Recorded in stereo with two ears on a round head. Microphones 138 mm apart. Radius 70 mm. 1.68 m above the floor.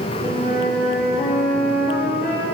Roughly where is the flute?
Left.